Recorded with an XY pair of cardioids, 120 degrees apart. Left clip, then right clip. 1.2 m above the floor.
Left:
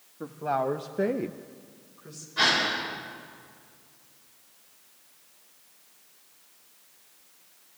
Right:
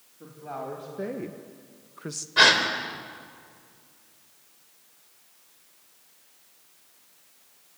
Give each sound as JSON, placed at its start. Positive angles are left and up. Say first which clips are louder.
{"t": 0.2, "sound": "a woman speaking", "louder": "left 9 dB", "azimuth_deg": 60, "distance_m": 1.9}
{"t": 2.4, "sound": "a gasp", "louder": "right 5 dB", "azimuth_deg": -60, "distance_m": 3.5}